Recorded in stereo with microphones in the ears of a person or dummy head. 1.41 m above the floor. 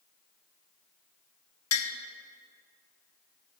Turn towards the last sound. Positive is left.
turn(degrees=70)  # may be behind; listen again after turning